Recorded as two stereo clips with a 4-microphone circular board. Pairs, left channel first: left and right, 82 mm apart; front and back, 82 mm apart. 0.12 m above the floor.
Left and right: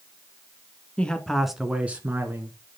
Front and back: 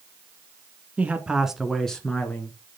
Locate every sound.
1.0 s a man speaking: 140° left, 1.3 m; by 2.6 s 60° right, 1.6 m